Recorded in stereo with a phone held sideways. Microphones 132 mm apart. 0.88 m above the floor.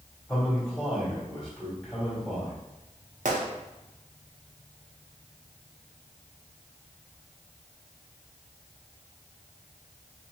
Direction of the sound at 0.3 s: 10° left (ahead or behind).